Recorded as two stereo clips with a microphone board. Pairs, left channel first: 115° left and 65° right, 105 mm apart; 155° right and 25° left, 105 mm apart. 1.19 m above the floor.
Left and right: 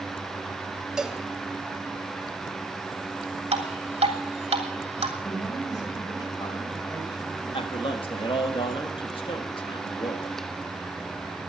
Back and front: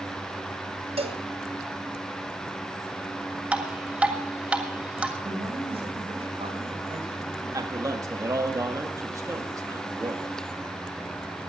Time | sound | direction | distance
1.0 | a cowbell | 15° left | 1.4 m
3.5 | dripping | 60° right | 2.5 m
5.2 | a man speaking | 55° left | 5.5 m
7.5 | a man speaking | 80° left | 2 m